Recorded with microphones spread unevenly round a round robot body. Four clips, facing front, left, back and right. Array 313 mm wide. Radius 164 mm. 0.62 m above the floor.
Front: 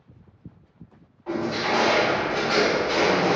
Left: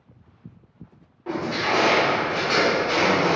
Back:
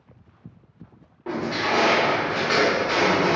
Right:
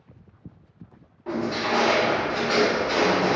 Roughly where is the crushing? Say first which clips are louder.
Left 1 dB, even; behind.